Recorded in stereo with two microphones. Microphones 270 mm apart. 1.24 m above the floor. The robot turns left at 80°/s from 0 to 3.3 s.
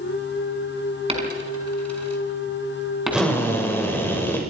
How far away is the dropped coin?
About 4.5 m.